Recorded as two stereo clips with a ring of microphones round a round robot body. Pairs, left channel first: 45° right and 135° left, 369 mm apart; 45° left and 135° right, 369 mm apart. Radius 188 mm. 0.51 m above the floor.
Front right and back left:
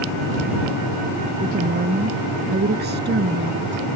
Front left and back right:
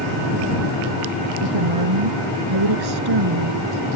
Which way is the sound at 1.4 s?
155° right.